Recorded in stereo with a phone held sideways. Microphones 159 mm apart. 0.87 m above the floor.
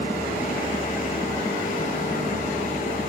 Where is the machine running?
55° left (ahead or behind), 1.2 m.